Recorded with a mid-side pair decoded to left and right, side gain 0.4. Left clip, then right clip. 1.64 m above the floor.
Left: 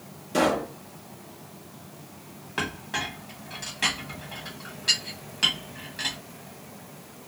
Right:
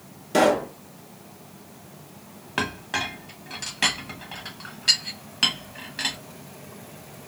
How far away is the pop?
About 2 m.